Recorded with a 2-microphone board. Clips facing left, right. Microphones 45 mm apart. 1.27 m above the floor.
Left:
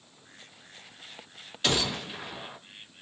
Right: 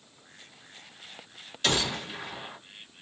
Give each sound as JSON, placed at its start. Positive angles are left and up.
{"t": 1.6, "sound": "a gunshot", "side_deg": 5, "distance_m": 1.4}